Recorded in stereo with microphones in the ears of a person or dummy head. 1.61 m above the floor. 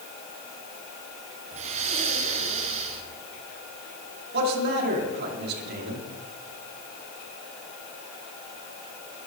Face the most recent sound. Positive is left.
turn(degrees=-60)  # may be behind; listen again after turning